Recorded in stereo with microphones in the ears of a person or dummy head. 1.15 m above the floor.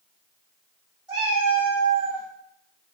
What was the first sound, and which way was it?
A cat meowing, 25° right (ahead or behind).